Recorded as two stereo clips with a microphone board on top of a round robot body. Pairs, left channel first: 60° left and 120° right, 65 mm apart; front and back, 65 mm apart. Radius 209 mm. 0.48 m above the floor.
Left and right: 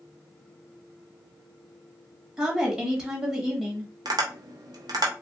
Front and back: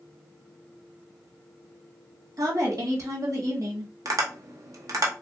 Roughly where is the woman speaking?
Behind.